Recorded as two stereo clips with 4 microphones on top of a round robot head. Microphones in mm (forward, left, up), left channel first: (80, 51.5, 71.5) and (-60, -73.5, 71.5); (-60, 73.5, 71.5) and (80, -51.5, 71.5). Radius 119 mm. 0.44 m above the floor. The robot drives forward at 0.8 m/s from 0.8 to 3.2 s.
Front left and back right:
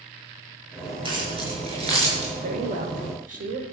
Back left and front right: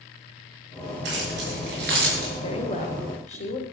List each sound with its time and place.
1.1 s keys jangling: 75° right, 5 m; by 2.3 s 85° right, 5 m
2.4 s a woman speaking: 175° right, 2.0 m